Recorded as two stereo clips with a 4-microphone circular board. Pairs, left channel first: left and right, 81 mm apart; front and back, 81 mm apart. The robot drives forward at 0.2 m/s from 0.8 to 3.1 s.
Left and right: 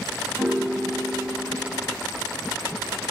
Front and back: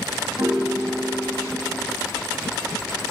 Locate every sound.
0.4 s a piano: 150° right, 1.0 m; by 2.0 s 155° right, 1.2 m